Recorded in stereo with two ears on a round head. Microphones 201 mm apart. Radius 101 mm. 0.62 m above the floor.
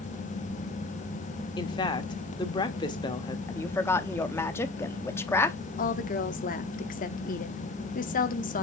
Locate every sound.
1.6 s a woman speaking: 20° left (ahead or behind), 1.2 m
3.5 s a woman speaking: 10° left (ahead or behind), 0.7 m
5.8 s a woman speaking: 40° left (ahead or behind), 1.0 m